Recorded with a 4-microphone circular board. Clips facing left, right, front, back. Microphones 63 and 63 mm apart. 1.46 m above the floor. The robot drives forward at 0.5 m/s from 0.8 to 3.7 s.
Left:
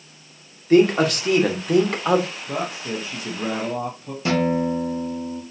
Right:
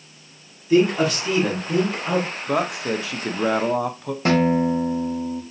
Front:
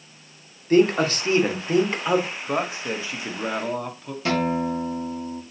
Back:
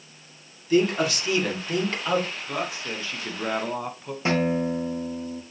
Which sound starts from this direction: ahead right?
A man speaking, at 2.5 s.